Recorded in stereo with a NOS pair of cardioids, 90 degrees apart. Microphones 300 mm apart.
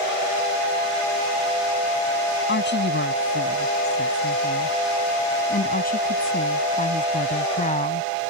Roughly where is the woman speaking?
Ahead left.